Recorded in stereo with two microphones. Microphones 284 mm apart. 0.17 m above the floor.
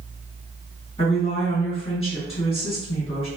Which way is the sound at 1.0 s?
20° left (ahead or behind).